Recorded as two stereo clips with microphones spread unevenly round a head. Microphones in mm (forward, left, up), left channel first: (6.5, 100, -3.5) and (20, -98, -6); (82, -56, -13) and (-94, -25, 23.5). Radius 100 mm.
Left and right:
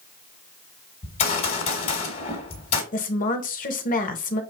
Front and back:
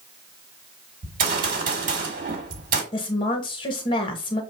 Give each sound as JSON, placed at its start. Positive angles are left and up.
{"t": 1.0, "sound": "a gunshot", "azimuth_deg": 145, "distance_m": 1.3}
{"t": 2.9, "sound": "a woman speaking", "azimuth_deg": 50, "distance_m": 0.9}